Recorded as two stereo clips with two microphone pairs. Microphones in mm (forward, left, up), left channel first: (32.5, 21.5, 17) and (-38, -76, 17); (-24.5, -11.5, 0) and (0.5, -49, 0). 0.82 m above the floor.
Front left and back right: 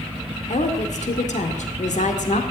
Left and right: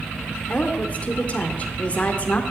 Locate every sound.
0.5 s a woman speaking: 60° left, 2 m